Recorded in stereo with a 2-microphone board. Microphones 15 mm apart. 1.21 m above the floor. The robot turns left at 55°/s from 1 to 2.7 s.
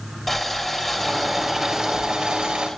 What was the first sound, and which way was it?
Boiling, 10° left.